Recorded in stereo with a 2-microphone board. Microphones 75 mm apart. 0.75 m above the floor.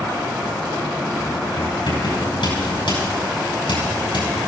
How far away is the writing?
About 7 m.